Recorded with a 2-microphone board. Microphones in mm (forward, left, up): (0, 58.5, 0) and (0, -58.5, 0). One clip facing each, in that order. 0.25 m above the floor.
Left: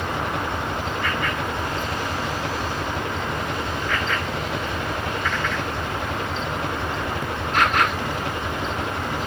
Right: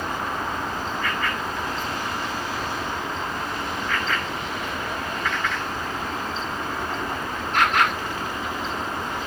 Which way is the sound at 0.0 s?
70° left (ahead or behind).